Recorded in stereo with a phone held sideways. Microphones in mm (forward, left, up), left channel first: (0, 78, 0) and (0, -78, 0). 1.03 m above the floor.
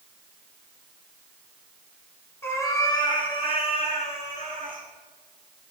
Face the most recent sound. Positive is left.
turn(degrees=60)  # may be behind; listen again after turning